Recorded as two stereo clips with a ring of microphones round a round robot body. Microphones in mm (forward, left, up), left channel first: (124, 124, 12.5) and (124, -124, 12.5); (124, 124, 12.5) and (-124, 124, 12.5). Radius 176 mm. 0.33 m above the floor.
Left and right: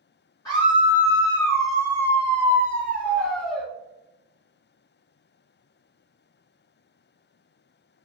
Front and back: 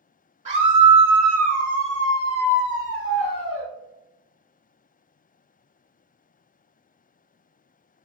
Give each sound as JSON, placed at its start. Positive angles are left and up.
{"t": 0.5, "sound": "a scream", "azimuth_deg": 155, "distance_m": 1.1}